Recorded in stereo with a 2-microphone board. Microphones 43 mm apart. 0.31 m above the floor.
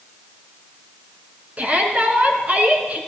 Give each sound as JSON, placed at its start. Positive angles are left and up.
{"t": 1.6, "sound": "a shout", "side_deg": -35, "distance_m": 3.0}